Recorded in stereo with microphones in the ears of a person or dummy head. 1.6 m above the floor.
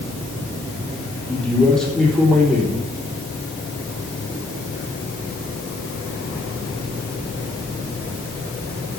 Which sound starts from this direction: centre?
A man speaking, at 1.3 s.